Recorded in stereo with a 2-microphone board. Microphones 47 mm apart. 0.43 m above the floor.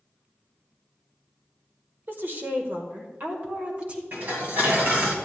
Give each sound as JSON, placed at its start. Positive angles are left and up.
{"t": 2.1, "sound": "a woman speaking", "side_deg": -45, "distance_m": 1.3}
{"t": 4.1, "sound": "dishes clattering", "side_deg": -50, "distance_m": 1.9}